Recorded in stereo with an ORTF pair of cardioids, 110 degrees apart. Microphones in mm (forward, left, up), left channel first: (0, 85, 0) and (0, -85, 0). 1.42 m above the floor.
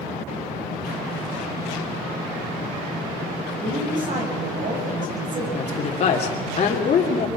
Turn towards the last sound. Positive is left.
turn(degrees=45)